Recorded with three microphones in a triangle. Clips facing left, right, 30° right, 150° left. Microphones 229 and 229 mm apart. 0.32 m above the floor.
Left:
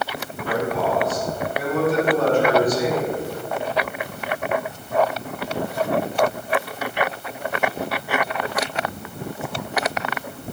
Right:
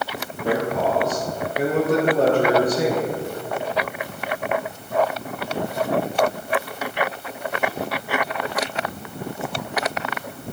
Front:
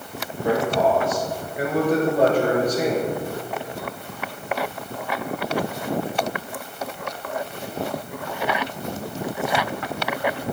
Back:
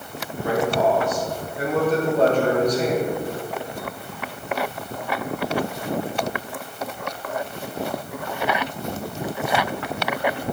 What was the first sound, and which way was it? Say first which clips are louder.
A man speaking: right 1 dB, even; 95° right.